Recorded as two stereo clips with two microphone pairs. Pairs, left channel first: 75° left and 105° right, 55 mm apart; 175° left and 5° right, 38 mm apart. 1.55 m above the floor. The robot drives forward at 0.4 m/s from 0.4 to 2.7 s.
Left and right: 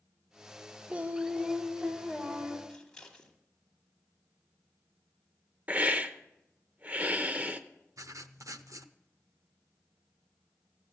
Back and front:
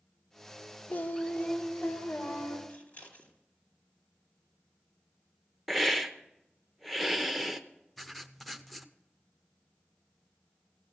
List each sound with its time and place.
0.9 s singing: 160° right, 0.6 m; by 2.6 s 170° right, 1.2 m
2.7 s scissors: 155° left, 2.0 m
5.7 s a hiss: 100° right, 0.7 m
8.0 s writing: 95° right, 0.6 m